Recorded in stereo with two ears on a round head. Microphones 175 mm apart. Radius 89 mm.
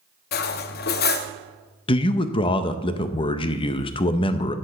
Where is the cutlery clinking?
50° left (ahead or behind), 0.6 m.